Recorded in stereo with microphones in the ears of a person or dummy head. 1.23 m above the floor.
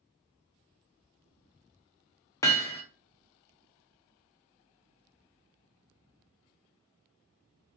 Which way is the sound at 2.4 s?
15° left (ahead or behind).